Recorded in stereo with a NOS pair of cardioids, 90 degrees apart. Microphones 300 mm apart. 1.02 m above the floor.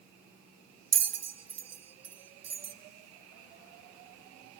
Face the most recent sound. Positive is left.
turn(degrees=-60)